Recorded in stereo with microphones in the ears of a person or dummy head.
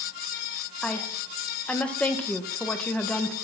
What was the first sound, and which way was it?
A woman speaking, 5° left (ahead or behind).